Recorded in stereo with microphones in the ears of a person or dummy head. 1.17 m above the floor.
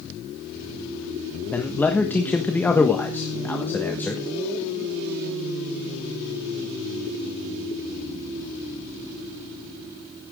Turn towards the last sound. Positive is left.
turn(degrees=10)  # may be behind; listen again after turning